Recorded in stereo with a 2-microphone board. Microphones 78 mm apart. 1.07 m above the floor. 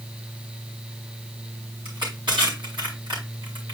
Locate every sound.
1.9 s crushing: 85° right, 4 m